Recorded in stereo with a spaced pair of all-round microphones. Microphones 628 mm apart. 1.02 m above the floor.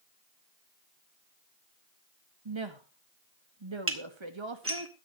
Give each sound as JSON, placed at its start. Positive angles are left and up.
{"t": 2.5, "sound": "a woman speaking", "side_deg": -45, "distance_m": 1.7}
{"t": 3.9, "sound": "dishes clattering", "side_deg": -20, "distance_m": 1.8}